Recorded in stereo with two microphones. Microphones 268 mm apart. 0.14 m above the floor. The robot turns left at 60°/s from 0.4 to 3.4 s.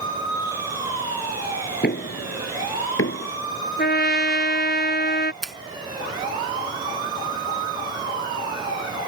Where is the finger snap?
Centre (ahead or behind).